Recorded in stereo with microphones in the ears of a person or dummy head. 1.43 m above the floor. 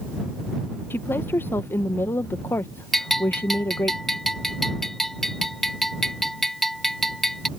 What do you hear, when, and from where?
0.9 s a woman speaking: 15° left (ahead or behind)
2.9 s a bell: centre (ahead or behind)